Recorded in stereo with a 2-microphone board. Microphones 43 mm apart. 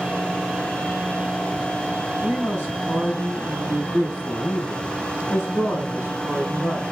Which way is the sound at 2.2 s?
70° left (ahead or behind).